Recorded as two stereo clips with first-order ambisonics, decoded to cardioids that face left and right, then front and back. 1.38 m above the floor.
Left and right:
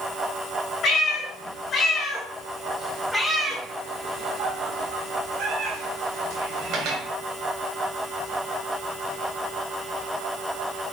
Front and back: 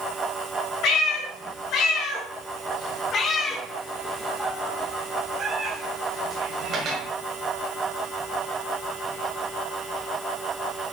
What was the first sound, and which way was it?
A cat meowing, 35° left.